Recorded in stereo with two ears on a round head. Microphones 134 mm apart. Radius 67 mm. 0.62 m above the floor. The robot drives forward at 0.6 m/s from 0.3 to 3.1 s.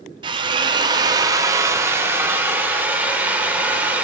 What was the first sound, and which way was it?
A drill, 30° right (ahead or behind).